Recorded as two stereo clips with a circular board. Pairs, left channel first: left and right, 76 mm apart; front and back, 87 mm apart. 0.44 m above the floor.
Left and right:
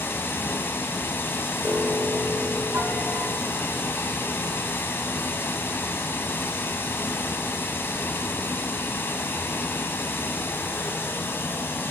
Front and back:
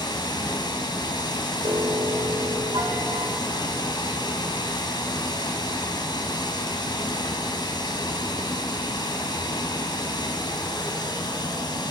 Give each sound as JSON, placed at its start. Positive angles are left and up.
{"t": 0.0, "sound": "running water", "azimuth_deg": 30, "distance_m": 2.5}
{"t": 1.6, "sound": "a piano", "azimuth_deg": -150, "distance_m": 3.0}